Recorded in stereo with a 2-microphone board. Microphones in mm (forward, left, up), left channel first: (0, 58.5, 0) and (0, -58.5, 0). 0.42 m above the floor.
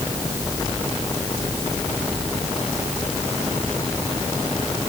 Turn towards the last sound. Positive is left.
No sound to turn to.